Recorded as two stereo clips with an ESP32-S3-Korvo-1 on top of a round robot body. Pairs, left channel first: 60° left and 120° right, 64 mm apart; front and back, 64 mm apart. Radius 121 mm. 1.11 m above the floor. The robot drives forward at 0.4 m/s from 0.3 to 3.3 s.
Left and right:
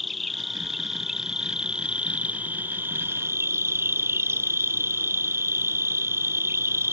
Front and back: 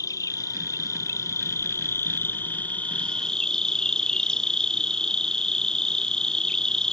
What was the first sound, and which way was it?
An insect, 30° right.